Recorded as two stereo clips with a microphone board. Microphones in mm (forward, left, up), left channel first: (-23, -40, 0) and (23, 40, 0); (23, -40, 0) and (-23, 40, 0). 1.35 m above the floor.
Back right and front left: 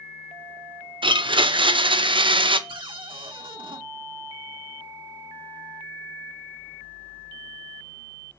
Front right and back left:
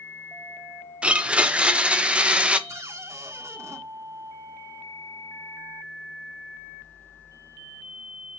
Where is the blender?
45° left, 0.7 m.